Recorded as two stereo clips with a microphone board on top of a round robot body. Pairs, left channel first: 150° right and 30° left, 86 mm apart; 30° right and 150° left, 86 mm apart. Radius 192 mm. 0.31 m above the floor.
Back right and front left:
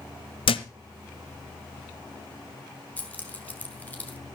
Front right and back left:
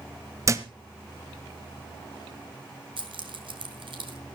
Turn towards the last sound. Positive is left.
turn(degrees=140)